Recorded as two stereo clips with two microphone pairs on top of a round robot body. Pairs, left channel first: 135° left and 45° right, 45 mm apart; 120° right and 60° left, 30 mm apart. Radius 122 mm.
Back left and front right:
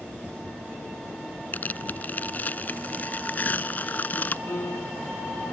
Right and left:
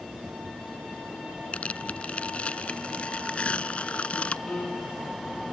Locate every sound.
1.5 s tearing paper: 175° right
4.5 s a piano: 175° left